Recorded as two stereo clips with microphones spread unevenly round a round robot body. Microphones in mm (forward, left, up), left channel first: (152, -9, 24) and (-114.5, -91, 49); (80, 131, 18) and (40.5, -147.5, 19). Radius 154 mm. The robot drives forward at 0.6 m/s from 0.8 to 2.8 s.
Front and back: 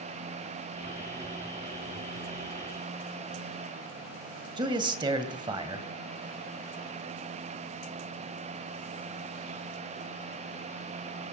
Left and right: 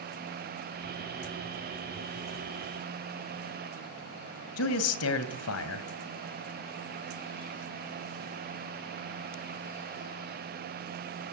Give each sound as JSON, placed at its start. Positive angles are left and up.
{"t": 4.6, "sound": "a man speaking", "azimuth_deg": 120, "distance_m": 1.9}